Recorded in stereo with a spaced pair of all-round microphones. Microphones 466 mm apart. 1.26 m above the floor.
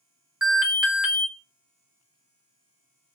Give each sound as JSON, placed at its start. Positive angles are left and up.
{"t": 0.4, "sound": "an alarm", "side_deg": 0, "distance_m": 0.7}